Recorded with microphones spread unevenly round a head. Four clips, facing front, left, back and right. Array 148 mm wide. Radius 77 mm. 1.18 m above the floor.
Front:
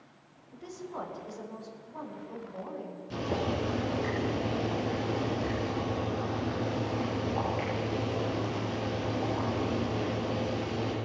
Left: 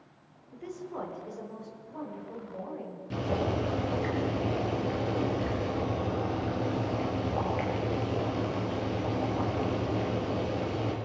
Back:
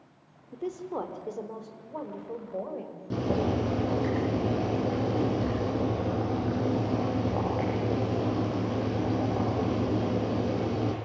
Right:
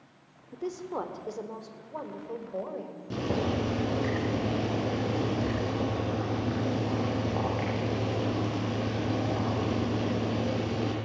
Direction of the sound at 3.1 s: 155° right.